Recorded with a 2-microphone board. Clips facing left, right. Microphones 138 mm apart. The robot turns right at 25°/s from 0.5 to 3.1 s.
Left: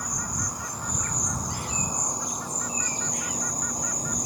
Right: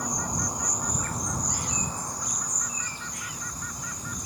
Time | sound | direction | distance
0.0 | an insect | 20° right | ?